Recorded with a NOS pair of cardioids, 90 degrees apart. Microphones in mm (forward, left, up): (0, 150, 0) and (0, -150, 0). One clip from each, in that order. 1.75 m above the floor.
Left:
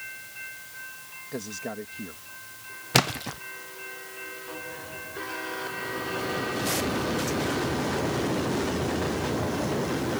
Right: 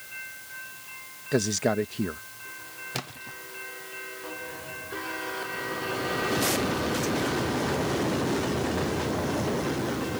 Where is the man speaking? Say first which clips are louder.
Right 10 dB; 65° right.